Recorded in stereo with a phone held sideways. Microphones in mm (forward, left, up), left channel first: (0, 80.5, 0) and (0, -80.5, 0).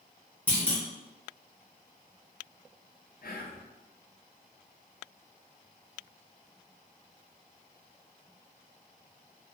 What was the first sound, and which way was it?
A clunk, 10° left (ahead or behind).